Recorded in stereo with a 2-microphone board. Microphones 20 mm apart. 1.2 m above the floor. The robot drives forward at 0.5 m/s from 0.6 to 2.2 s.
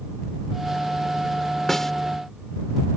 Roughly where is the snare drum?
Left.